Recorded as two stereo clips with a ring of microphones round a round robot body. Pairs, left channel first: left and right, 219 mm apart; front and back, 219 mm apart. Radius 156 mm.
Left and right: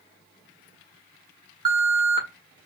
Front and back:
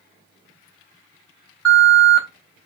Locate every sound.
1.6 s an alarm: 75° right, 1.9 m